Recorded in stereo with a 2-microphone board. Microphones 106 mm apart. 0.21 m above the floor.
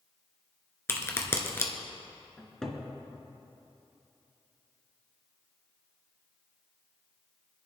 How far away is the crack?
About 1.6 m.